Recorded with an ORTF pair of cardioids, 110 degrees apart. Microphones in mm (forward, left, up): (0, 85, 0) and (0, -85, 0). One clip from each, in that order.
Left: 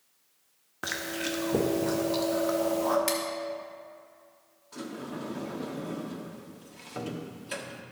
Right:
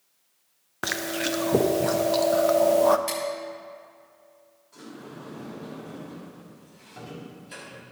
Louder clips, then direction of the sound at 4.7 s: Left 4 dB; 55° left.